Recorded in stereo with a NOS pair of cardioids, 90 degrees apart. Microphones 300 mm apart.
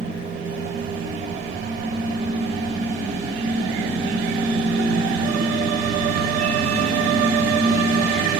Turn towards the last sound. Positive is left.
turn(degrees=-25)